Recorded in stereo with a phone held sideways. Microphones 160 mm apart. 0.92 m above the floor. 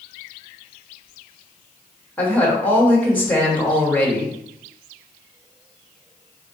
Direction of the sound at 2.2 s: 10° left (ahead or behind).